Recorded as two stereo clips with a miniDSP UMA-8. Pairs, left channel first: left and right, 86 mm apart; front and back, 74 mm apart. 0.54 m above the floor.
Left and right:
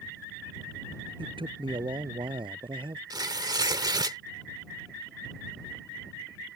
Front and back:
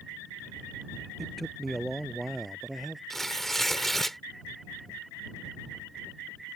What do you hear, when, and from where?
1.2 s a man speaking: 90° right
3.1 s tearing paper: 85° right